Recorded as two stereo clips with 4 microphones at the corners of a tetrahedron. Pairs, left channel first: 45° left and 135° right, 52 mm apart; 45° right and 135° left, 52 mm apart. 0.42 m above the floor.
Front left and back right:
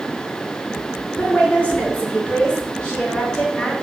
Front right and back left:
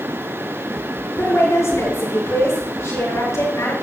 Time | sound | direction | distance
1.2 | a woman speaking | 20° right | 7 m